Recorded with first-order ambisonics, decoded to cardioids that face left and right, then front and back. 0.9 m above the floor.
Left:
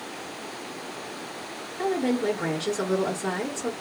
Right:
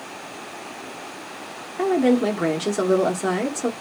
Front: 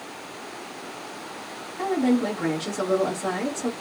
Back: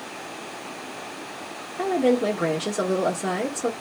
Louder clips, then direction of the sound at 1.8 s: Right 6 dB, back 3 dB; 110° right.